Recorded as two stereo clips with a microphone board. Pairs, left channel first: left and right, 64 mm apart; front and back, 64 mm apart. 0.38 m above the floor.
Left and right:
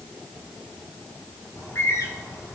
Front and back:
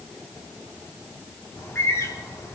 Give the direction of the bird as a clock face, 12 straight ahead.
10 o'clock.